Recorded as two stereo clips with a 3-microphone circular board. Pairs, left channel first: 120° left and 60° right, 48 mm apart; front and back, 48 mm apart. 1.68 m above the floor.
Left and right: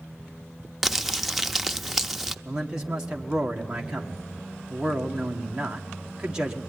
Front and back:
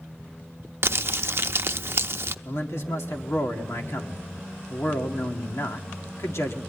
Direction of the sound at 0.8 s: 145° right.